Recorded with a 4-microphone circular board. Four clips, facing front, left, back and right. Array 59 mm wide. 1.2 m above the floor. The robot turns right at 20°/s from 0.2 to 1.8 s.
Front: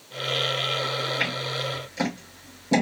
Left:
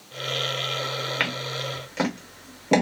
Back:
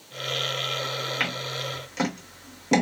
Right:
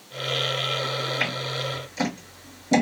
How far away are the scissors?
About 1.8 m.